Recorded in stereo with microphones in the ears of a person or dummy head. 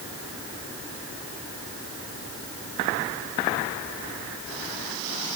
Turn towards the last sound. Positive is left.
No sound to turn to.